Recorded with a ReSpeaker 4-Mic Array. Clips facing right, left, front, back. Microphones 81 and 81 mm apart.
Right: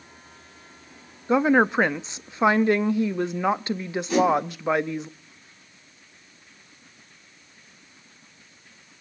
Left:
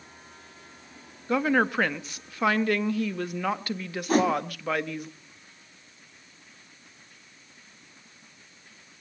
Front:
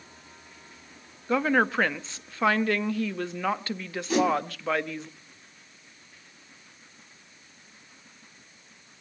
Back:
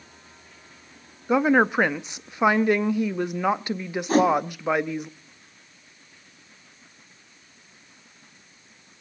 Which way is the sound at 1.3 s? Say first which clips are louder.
Right 5 dB, back 4 dB; 130° right.